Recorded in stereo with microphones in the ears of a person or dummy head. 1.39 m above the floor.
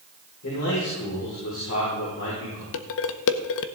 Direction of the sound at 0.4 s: 60° left (ahead or behind).